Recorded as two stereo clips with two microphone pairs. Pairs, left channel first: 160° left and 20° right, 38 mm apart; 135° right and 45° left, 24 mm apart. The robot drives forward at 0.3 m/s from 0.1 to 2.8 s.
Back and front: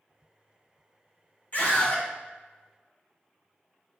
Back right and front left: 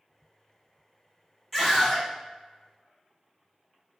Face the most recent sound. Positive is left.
turn(degrees=150)